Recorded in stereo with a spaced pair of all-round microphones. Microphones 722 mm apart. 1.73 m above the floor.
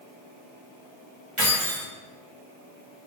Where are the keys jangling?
45° right (ahead or behind), 1.3 m.